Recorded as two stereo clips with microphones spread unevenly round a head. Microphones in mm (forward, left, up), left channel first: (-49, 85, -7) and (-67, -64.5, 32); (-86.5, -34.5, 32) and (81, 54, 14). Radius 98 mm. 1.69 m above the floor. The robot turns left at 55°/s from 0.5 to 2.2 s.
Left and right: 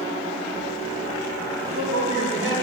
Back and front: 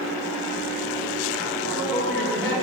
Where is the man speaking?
40° right, 2.5 m; by 2.5 s 70° right, 2.5 m.